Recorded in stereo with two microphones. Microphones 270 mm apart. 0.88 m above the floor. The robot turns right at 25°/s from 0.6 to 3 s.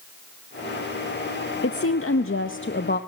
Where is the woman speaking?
95° left, 0.8 m; by 3.0 s 130° left, 0.8 m.